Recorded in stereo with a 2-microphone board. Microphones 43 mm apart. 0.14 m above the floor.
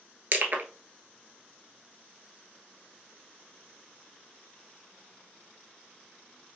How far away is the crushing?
About 0.8 m.